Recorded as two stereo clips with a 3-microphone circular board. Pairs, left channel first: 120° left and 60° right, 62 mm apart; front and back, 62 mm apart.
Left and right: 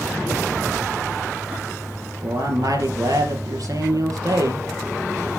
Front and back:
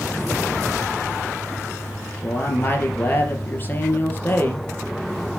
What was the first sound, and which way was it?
A man speaking, 55° right.